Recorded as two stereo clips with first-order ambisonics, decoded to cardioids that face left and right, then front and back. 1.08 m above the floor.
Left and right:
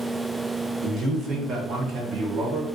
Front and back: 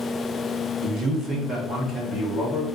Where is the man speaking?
155° right, 0.9 m; by 2.7 s 70° right, 1.1 m.